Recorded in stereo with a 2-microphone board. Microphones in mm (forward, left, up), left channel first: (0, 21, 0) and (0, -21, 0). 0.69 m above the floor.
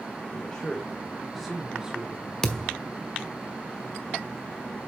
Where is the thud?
20° left (ahead or behind), 1.0 m.